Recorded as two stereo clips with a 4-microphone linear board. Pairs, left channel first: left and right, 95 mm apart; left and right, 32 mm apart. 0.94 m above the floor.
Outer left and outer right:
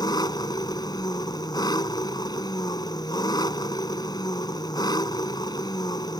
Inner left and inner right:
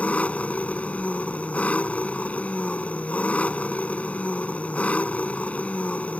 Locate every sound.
0.0 s an engine running: 45° left (ahead or behind)